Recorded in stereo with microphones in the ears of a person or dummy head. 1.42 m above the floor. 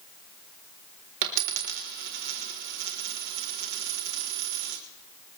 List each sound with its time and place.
1.2 s a dropped coin: 55° right (ahead or behind), 1.6 m